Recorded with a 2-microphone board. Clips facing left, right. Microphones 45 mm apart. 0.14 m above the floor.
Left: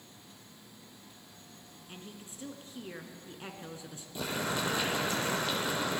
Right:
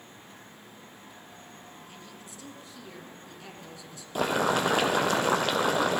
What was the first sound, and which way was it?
A woman speaking, 30° left (ahead or behind).